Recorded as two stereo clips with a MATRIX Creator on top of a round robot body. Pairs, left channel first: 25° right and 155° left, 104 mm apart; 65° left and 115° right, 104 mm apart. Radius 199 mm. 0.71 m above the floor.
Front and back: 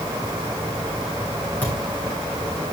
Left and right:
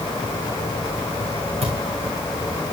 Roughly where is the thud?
Right.